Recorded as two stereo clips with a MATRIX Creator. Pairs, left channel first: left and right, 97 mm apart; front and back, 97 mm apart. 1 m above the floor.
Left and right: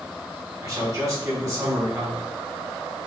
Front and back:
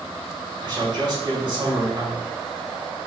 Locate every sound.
0.6 s a man speaking: 135° right, 3.5 m